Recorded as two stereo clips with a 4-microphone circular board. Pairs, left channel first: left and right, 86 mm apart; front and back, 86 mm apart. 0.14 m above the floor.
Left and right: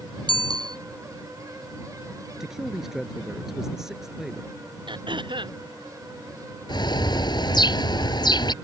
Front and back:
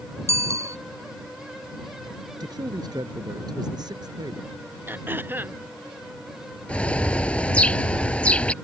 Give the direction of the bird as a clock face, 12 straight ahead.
10 o'clock.